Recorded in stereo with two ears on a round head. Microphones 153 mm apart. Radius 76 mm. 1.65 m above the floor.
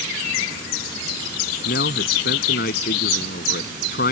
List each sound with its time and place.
1.6 s a man speaking: 60° left (ahead or behind); by 4.1 s 55° left (ahead or behind)